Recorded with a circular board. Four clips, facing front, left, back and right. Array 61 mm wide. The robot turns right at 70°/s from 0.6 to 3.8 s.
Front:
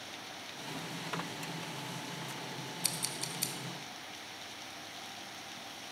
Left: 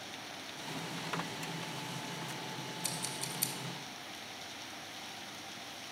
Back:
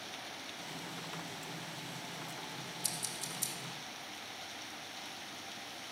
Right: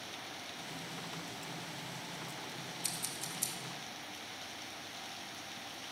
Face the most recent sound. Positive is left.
turn(degrees=65)